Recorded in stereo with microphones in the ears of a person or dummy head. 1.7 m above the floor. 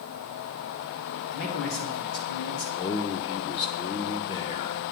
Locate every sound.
1.3 s a man speaking: 80° left, 2.5 m
2.8 s a man speaking: 25° left (ahead or behind), 0.5 m